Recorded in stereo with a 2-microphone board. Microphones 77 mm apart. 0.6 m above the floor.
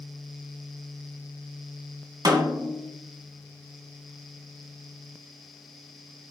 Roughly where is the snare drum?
Right.